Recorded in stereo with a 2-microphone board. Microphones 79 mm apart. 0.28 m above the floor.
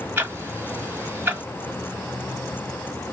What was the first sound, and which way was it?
Ticking, 25° right (ahead or behind).